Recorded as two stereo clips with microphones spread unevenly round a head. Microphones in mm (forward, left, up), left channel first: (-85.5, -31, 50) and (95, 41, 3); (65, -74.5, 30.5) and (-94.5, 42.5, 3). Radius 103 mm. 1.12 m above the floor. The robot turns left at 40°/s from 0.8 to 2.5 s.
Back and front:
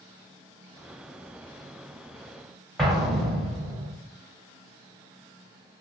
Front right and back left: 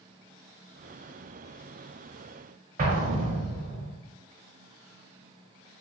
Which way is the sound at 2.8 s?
105° left.